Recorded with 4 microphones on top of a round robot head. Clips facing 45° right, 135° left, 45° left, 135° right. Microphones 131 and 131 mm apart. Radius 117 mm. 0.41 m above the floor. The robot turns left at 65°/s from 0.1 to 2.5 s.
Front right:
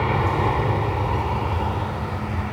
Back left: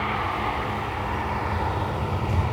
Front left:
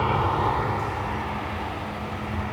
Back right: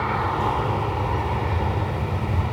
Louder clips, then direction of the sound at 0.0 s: Front right 5 dB, even; 25° right.